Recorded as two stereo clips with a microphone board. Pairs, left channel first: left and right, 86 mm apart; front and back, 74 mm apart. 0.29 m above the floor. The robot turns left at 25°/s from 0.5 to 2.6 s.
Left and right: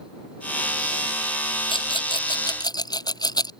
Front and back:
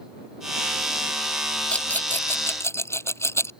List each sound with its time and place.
1.7 s a rattle: 75° left; by 3.5 s 50° left